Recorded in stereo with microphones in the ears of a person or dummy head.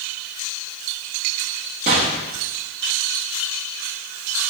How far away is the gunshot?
About 0.8 m.